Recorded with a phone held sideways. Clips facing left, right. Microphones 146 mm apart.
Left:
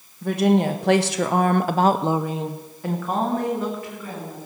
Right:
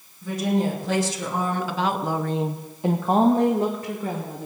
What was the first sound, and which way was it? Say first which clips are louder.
A woman speaking: left 5 dB; 70° left (ahead or behind).